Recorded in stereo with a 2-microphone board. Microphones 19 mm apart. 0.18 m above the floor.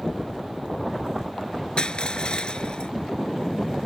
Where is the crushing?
45° left (ahead or behind).